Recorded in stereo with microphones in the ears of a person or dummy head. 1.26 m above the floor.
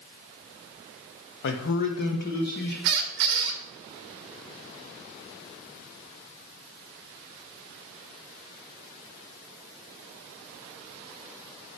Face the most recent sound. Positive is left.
turn(degrees=-50)  # may be behind; listen again after turning